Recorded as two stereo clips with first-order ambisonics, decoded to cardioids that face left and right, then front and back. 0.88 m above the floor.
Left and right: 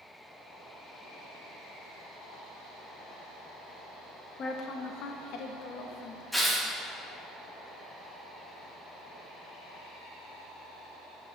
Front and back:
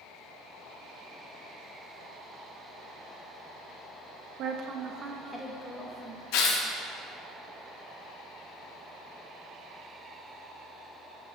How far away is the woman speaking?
About 0.6 m.